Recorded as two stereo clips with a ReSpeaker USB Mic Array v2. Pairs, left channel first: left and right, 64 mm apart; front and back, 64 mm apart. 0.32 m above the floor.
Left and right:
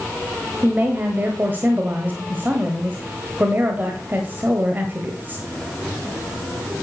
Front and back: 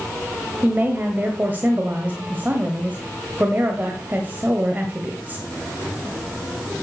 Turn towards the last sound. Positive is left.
turn(degrees=-135)